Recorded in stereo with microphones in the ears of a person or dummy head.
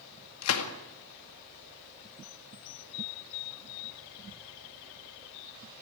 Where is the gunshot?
80° left, 2 m.